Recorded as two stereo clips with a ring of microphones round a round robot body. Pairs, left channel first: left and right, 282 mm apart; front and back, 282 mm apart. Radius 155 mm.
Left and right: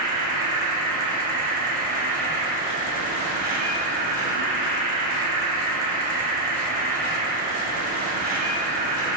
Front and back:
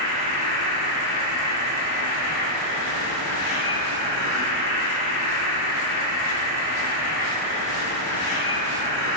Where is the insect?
30° right, 3.5 m.